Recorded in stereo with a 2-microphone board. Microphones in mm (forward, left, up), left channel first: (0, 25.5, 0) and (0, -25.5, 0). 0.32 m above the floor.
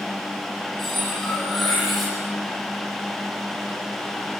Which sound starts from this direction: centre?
Cutlery clinking, at 0.8 s.